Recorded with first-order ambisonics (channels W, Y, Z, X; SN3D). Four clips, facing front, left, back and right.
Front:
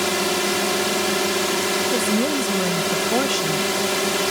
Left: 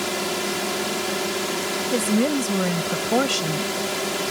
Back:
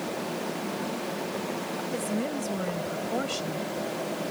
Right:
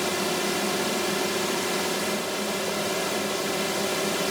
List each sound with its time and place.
0.0 s a drone: 5° left
1.9 s a woman speaking: 65° left